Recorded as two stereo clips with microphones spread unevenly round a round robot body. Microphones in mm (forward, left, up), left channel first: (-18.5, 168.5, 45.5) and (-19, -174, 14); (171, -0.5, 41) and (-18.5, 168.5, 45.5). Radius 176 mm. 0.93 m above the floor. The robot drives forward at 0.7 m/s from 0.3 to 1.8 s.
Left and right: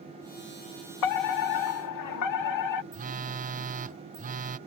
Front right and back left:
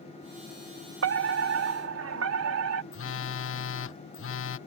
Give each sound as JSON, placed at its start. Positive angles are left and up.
{"t": 1.0, "sound": "a fire alarm", "azimuth_deg": 115}
{"t": 2.9, "sound": "a phone buzzing", "azimuth_deg": -30}